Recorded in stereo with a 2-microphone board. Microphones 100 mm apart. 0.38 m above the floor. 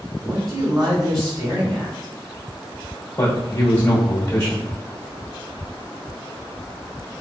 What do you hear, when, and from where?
0.2 s a man speaking: 35° right (ahead or behind), 1.7 m
3.2 s a man speaking: 25° left (ahead or behind), 1.0 m